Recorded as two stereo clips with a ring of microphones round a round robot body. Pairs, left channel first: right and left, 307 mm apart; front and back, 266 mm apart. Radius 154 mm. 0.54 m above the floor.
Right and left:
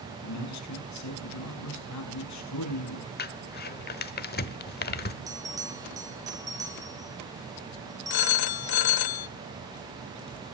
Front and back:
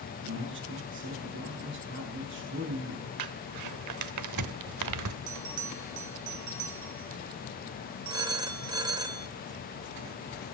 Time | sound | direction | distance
0.2 | a man speaking | 125° right | 6 m
3.2 | crumpling | 150° right | 1.1 m
5.3 | a bell | 170° left | 3.5 m
8.1 | a phone ringing | 105° right | 1.1 m